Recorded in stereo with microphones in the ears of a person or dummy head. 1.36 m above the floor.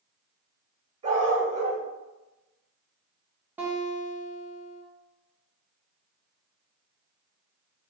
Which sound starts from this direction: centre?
A guitar, at 3.6 s.